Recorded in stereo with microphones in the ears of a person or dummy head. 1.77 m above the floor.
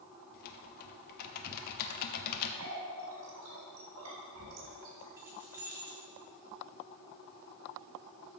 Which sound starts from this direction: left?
Typing on a keyboard, at 0.3 s.